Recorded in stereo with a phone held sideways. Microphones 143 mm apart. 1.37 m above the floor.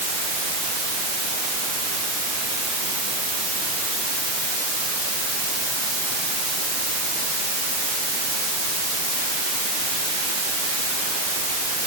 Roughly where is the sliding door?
No sliding door in this recording.